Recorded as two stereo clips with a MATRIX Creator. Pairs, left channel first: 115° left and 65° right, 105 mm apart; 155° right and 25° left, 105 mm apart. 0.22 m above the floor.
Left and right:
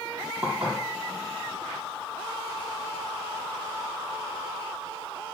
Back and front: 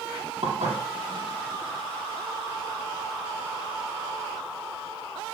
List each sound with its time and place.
0.4 s dishes clattering: 15° left, 5 m